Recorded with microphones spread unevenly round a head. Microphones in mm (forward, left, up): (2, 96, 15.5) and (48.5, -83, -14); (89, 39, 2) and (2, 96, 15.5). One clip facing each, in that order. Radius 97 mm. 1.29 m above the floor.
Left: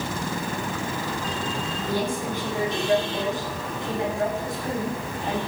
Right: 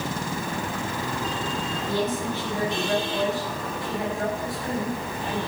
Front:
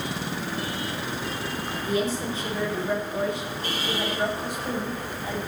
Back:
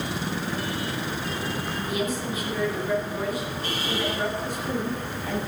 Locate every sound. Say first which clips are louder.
1.8 s a woman speaking: even, front 4 dB; 25° left, 5.5 m; by 5.4 s 40° left, 8.5 m